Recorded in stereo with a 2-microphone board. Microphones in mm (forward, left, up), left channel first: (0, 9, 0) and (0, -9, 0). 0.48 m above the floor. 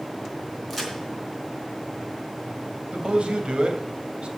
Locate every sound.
0.7 s a crack: centre (ahead or behind), 4 m
2.9 s a man speaking: 70° right (ahead or behind), 2.5 m